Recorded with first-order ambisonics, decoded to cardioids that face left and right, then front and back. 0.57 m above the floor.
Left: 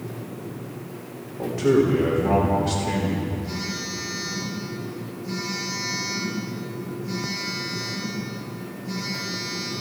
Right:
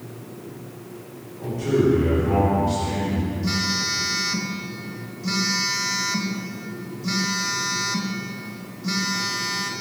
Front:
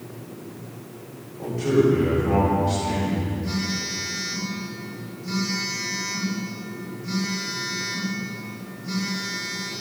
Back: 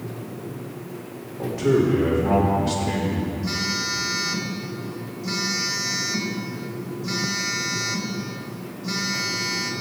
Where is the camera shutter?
No camera shutter in this recording.